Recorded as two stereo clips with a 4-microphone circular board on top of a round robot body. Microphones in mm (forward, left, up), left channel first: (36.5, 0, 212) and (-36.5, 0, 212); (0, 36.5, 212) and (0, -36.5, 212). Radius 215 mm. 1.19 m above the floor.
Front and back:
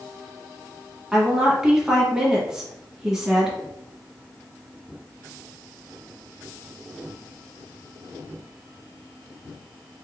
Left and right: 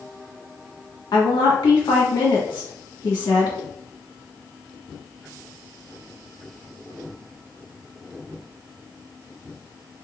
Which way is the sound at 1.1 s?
100° left.